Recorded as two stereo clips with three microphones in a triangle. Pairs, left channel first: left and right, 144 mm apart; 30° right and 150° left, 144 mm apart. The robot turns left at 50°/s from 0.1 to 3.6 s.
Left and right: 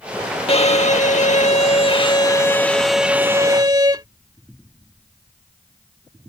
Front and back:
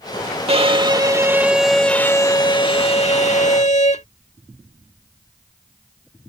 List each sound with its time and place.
0.5 s a violin: 120° left; by 4.1 s 35° right